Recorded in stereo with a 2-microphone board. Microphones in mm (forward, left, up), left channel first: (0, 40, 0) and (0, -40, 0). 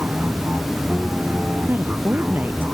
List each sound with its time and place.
0.0 s an aircraft: 20° right (ahead or behind)
1.7 s a woman speaking: 25° right (ahead or behind)